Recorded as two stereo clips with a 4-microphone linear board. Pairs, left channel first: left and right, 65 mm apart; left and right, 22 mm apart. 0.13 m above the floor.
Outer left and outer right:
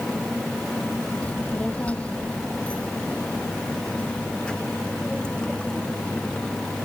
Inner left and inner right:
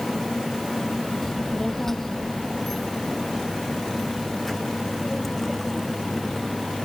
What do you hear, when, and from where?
1.2 s a child speaking: 25° left (ahead or behind); by 6.7 s 15° left (ahead or behind)